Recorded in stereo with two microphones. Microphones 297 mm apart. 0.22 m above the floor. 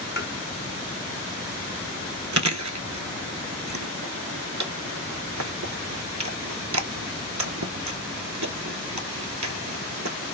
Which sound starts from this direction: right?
Chewing, at 2.3 s.